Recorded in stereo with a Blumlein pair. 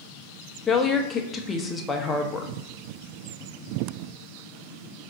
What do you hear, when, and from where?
0.7 s a woman speaking: 15° left, 0.6 m